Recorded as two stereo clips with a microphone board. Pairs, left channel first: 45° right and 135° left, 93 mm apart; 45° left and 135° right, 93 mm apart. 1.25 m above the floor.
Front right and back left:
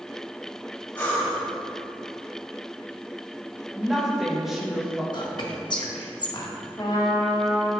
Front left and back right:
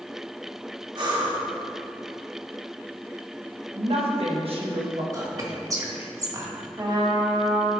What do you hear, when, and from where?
0.9 s breathing: 115° right, 2.5 m
3.8 s a woman speaking: 140° right, 1.5 m
5.1 s whispering: 85° right, 1.5 m
6.8 s a trumpet: 90° right, 1.2 m